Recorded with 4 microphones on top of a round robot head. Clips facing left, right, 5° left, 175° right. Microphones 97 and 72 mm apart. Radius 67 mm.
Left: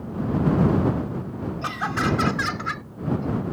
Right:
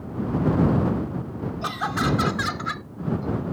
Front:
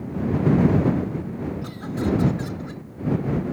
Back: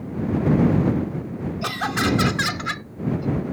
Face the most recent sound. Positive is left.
turn(degrees=-175)